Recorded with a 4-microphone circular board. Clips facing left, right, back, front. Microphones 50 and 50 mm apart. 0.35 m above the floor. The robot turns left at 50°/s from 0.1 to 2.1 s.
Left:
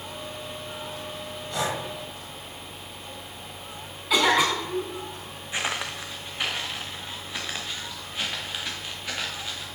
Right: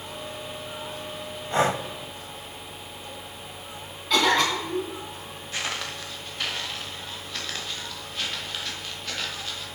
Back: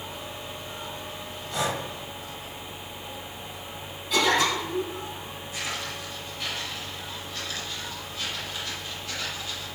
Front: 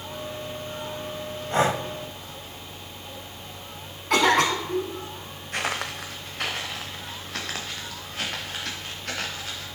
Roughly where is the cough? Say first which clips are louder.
Even, front 3 dB; ahead.